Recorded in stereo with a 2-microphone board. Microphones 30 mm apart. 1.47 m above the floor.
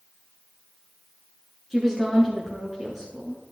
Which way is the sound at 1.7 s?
15° right (ahead or behind).